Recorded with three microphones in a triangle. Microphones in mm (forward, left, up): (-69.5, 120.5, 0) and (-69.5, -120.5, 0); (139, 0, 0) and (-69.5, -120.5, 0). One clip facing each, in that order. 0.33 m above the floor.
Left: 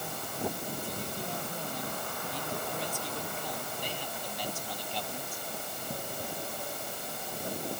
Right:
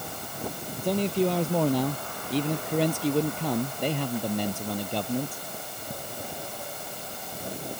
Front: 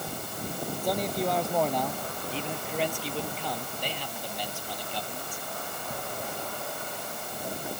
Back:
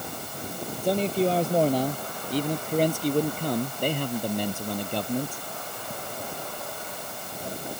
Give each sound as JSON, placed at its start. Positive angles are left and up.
{"t": 0.8, "sound": "a man speaking", "azimuth_deg": -90}